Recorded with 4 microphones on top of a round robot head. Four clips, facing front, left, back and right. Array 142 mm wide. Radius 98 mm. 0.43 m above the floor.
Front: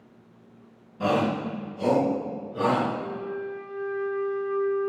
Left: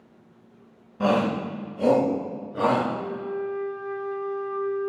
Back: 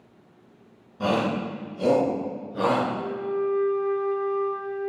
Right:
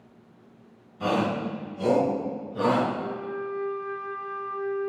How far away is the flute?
About 2 m.